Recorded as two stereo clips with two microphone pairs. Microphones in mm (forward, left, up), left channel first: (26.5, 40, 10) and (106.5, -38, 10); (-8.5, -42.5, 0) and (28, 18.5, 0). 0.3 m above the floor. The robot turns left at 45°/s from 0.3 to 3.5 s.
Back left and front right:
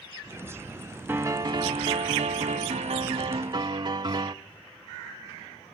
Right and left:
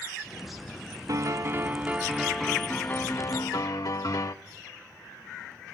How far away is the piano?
About 0.5 m.